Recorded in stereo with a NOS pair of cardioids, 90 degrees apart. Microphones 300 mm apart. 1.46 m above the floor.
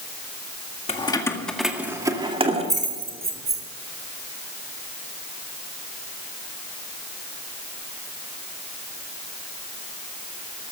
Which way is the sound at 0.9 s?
20° left.